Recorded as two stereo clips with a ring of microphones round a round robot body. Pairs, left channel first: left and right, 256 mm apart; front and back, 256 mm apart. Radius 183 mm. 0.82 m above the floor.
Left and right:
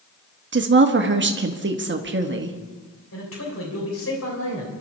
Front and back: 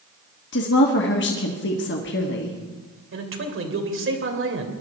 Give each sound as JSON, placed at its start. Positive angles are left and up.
{"t": 0.5, "sound": "a woman speaking", "azimuth_deg": -50, "distance_m": 1.3}
{"t": 3.1, "sound": "a man speaking", "azimuth_deg": 145, "distance_m": 3.0}